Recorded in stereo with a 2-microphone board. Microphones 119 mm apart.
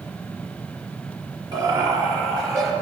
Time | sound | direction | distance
1.5 | laughter | 40° right (ahead or behind) | 2.0 m